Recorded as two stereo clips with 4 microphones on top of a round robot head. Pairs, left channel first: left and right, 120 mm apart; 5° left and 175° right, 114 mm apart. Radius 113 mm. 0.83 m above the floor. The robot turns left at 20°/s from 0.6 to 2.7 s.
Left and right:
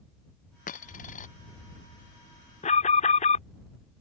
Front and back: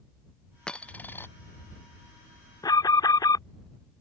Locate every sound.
0.7 s a dropped coin: 90° left; by 1.3 s 75° left
2.6 s an alarm: 65° left